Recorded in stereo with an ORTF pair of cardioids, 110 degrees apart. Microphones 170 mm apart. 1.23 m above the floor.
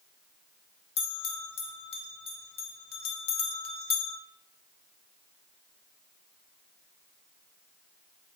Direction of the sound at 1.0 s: 35° left.